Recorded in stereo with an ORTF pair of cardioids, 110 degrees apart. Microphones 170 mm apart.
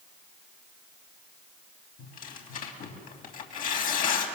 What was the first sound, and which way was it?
Tearing paper, 60° left.